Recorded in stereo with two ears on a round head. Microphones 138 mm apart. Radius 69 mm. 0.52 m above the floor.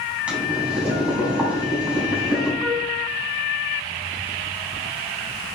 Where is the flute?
Centre (ahead or behind), 0.9 m.